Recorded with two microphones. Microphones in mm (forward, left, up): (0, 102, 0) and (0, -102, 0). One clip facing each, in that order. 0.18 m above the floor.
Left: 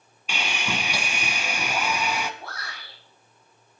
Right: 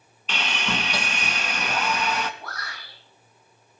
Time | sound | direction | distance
0.3 | sawing | 10° left (ahead or behind) | 1.4 m
2.4 | a shout | 30° left (ahead or behind) | 9.5 m